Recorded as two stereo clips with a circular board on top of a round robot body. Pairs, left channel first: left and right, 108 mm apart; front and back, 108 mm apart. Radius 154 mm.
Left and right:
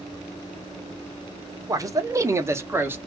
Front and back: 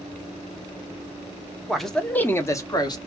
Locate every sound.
1.7 s a man speaking: 95° right, 1.1 m; by 3.0 s 25° right, 1.2 m